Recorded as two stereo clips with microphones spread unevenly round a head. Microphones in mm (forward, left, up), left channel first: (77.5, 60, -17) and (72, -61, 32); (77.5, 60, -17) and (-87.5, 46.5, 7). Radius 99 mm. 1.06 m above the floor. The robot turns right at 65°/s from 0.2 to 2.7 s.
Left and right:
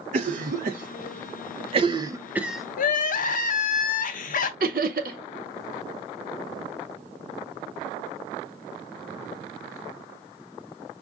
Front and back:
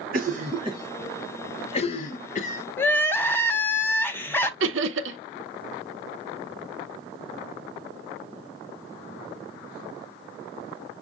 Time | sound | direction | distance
0.1 | a cough | 140° right | 0.5 m
2.8 | crying | 85° left | 0.7 m
4.6 | laughter | 145° right | 0.5 m